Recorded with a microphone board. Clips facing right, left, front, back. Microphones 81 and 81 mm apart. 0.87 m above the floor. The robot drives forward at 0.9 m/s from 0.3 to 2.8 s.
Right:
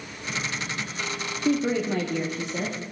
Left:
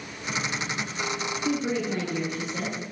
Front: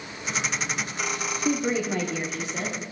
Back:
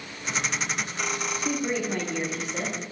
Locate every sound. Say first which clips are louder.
1.4 s a woman speaking: right 4 dB, front 4 dB; 70° right, 2.0 m; by 2.8 s 105° right, 1.9 m